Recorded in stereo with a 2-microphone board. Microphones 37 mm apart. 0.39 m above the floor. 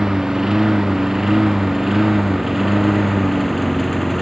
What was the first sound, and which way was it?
A lawn mower, 10° right (ahead or behind).